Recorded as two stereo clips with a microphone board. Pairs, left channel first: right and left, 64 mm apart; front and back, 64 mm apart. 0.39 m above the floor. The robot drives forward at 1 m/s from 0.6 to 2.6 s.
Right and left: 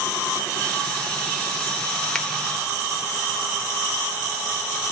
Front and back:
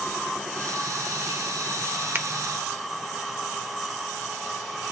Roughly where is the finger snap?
Behind.